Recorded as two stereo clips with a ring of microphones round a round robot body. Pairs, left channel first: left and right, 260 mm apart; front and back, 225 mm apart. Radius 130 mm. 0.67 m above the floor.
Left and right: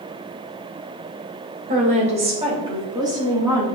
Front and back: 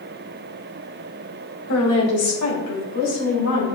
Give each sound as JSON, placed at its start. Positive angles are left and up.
{"t": 1.7, "sound": "a woman speaking", "azimuth_deg": -30, "distance_m": 2.0}